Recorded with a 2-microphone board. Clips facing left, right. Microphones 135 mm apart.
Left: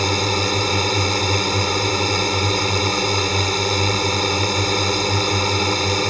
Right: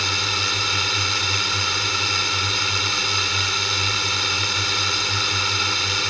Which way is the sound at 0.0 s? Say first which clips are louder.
Left 9 dB; 45° left (ahead or behind).